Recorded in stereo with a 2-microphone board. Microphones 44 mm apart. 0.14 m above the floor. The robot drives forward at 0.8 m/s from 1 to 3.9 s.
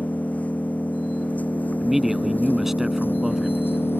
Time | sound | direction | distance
0.0 | an engine running | 35° left (ahead or behind) | ?
1.8 | a man speaking | 5° right (ahead or behind) | ?